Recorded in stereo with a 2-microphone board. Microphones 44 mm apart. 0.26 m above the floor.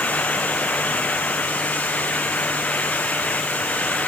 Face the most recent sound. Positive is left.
No sound to turn to.